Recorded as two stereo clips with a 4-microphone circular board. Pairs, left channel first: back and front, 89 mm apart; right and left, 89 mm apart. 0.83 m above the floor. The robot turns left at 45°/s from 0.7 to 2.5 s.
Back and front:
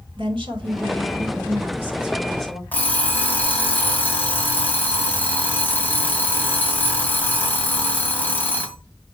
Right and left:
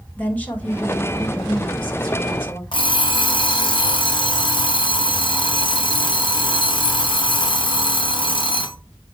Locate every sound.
0.2 s a woman speaking: 20° right, 4 m; by 2.6 s 100° right, 4 m
2.7 s an alarm clock: 110° right, 2.5 m